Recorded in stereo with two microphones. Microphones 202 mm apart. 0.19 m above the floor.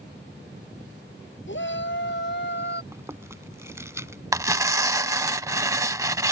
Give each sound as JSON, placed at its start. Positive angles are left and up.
{"t": 1.5, "sound": "a shout", "side_deg": 70}
{"t": 2.9, "sound": "chewing", "side_deg": -15}
{"t": 4.3, "sound": "tearing paper", "side_deg": -15}